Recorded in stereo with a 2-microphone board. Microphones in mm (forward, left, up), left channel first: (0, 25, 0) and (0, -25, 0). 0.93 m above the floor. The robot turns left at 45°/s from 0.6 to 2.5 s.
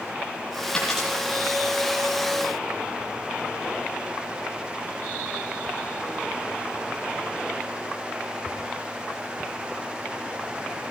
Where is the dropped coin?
15° left (ahead or behind), 9 m; by 1.1 s centre (ahead or behind), 9 m.